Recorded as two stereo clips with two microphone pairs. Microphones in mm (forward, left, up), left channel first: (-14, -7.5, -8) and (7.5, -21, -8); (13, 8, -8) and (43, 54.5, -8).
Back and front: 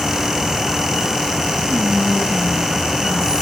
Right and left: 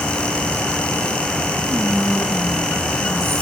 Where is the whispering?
95° left, 3 m.